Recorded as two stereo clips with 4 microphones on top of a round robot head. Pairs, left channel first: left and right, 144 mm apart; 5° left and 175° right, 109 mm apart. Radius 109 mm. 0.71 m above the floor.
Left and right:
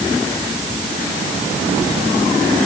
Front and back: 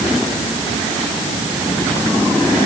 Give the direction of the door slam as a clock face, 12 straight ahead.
I don't hear a door slam.